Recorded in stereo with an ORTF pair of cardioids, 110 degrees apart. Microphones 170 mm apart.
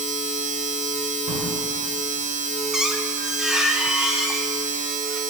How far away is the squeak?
About 0.8 m.